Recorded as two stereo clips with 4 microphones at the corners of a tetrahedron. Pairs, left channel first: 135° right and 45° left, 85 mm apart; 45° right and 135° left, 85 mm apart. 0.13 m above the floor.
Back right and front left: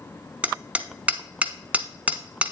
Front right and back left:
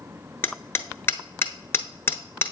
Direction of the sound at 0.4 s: 15° right.